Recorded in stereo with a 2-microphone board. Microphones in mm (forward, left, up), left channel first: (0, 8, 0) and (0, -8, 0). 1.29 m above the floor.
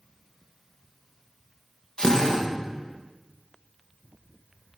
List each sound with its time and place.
2.0 s a drill: 50° left (ahead or behind), 1.7 m